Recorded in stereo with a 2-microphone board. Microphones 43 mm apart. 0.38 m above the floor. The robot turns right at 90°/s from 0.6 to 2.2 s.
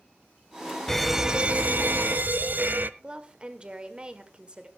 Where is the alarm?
170° left, 0.6 m; by 2.9 s 75° right, 0.6 m.